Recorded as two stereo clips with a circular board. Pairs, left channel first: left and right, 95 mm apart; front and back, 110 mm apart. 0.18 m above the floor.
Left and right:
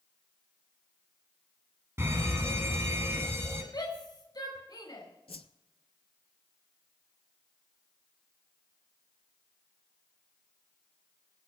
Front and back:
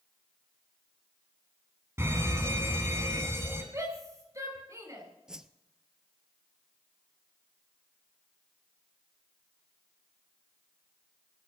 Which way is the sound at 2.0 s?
130° right.